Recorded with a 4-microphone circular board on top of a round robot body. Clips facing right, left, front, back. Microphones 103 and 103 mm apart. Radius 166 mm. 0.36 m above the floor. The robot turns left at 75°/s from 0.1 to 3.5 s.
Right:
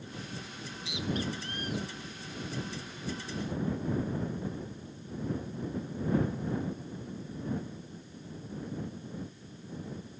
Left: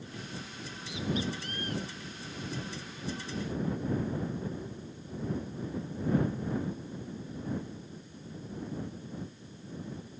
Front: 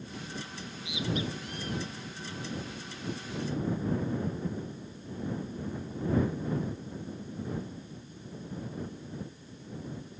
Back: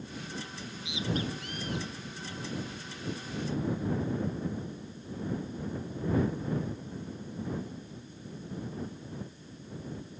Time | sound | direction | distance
0.6 | a bird | 90° right | ?